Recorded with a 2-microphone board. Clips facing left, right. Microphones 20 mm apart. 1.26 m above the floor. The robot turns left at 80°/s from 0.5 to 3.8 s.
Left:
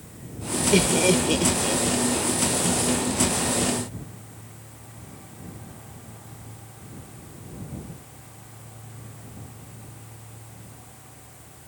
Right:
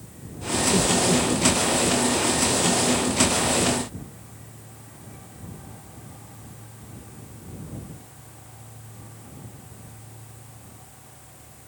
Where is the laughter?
85° left; by 1.8 s 5° left (ahead or behind).